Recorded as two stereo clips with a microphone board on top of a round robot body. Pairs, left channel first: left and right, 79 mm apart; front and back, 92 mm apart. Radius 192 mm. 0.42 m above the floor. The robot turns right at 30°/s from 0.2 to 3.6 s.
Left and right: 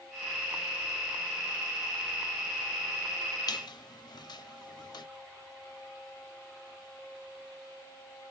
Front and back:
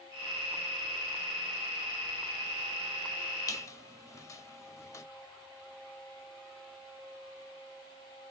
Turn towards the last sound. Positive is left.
turn(degrees=55)